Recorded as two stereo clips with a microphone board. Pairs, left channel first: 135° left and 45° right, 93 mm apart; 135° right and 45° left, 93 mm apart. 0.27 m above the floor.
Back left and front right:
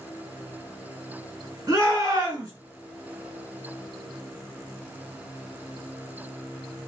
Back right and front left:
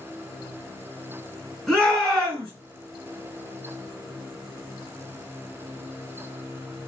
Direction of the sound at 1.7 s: 55° right.